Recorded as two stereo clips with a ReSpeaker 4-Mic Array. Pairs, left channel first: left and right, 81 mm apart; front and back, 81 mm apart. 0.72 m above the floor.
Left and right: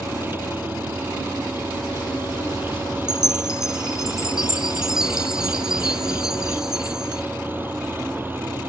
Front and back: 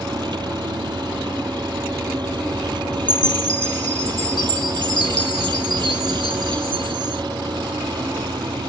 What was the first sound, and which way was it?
An engine running, 155° right.